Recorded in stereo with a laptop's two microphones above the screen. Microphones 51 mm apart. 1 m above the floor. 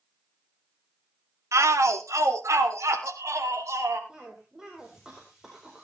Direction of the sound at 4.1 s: 10° right (ahead or behind).